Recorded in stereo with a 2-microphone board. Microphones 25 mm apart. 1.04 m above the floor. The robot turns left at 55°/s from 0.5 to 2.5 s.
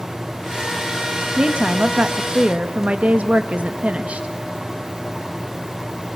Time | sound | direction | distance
1.4 | a woman speaking | 50° right | 1.3 m